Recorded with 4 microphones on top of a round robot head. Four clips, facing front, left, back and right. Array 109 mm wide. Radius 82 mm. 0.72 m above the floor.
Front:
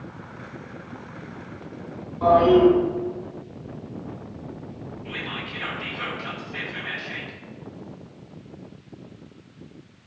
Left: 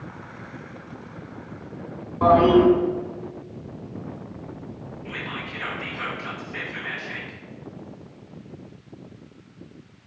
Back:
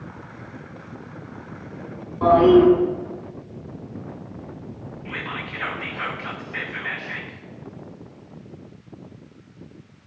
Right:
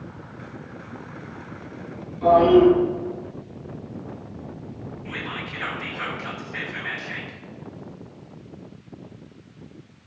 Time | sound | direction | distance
2.2 | a toilet flushing | 105° left | 3 m
5.0 | whispering | 155° right | 1.5 m